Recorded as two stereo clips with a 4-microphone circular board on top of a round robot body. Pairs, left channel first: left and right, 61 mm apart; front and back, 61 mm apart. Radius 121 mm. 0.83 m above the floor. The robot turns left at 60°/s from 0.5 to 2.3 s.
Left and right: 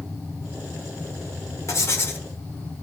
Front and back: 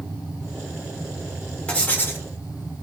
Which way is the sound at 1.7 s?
70° left.